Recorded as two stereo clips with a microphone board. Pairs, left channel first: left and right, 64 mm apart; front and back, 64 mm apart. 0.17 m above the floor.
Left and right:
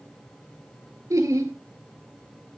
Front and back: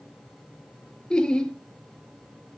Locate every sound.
1.1 s laughter: 75° right, 2.5 m